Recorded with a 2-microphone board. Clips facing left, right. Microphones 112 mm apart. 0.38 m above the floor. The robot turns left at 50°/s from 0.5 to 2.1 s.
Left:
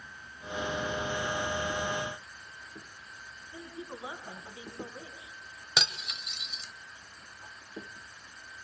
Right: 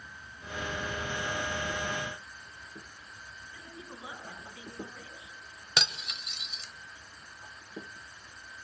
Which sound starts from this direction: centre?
Cutlery clinking, at 5.8 s.